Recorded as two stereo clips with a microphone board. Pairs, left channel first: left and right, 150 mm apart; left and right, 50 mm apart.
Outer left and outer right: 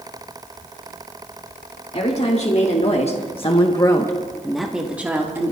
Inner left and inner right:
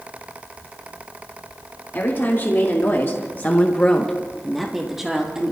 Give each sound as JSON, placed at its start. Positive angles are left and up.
{"t": 1.9, "sound": "a woman speaking", "side_deg": 45, "distance_m": 2.0}